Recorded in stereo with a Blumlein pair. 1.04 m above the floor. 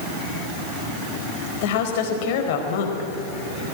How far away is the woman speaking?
About 4 m.